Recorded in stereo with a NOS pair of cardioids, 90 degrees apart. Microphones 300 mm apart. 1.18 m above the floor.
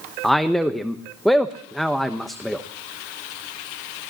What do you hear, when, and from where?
0.2 s a man speaking: straight ahead, 0.9 m